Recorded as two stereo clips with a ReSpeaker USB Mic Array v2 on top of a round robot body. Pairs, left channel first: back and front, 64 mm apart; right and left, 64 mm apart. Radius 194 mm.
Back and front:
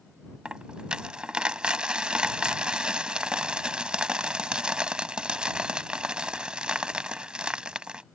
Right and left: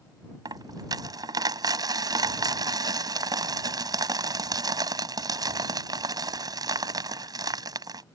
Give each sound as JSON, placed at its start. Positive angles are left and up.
{"t": 0.5, "sound": "a dropped coin", "azimuth_deg": 75}